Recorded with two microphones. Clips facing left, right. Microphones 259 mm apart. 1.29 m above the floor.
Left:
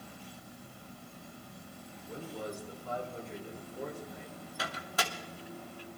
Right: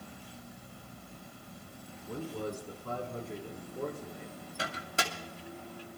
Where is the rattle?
I don't hear a rattle.